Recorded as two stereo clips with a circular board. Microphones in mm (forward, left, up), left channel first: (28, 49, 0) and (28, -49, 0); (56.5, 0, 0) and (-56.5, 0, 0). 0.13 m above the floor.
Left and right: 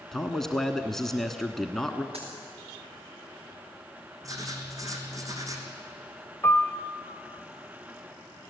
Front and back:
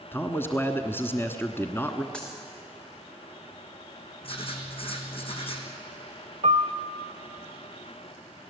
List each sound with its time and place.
0.1 s a man speaking: 10° left, 1.2 m
2.1 s a dropped coin: 80° right, 5.5 m
4.2 s writing: 35° right, 3 m
6.4 s a piano: 160° left, 0.8 m